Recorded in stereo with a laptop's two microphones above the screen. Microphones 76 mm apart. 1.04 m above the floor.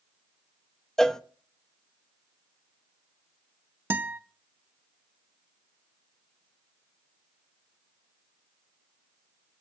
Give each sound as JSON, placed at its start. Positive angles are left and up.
{"t": 1.0, "sound": "a cowbell", "side_deg": 10, "distance_m": 0.5}
{"t": 3.9, "sound": "a guitar", "side_deg": -25, "distance_m": 0.6}